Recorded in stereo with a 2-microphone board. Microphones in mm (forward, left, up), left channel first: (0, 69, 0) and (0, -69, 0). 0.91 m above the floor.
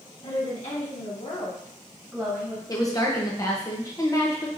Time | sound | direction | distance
0.2 | a woman speaking | 55° left (ahead or behind) | 2 m
2.7 | a woman speaking | 25° left (ahead or behind) | 0.8 m